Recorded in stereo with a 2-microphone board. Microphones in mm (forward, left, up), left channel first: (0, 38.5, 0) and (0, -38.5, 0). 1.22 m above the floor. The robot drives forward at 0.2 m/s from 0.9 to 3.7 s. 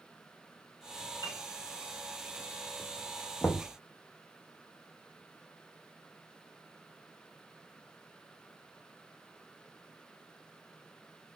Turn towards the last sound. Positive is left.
turn(degrees=25)  # may be behind; listen again after turning